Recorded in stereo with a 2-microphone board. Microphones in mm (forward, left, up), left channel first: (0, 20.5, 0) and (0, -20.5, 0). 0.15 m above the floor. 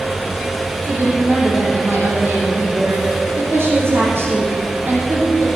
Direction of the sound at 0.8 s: 70° right (ahead or behind).